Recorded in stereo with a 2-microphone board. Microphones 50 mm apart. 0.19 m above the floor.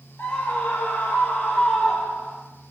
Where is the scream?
40° left (ahead or behind), 4 m; by 2.4 s centre (ahead or behind), 4 m.